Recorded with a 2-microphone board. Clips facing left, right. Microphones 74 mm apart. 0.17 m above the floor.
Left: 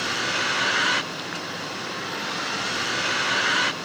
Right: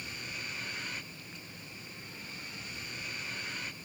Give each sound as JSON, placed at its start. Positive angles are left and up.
{"t": 0.0, "sound": "a vehicle", "side_deg": 80}